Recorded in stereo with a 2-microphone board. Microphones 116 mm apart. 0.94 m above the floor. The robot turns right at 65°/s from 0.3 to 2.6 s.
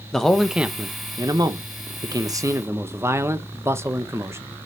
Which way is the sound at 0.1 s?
175° left.